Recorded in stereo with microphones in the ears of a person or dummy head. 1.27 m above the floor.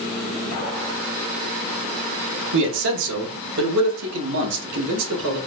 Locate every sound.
2.5 s a man speaking: 70° right (ahead or behind), 0.9 m; by 5.4 s 85° right, 2.5 m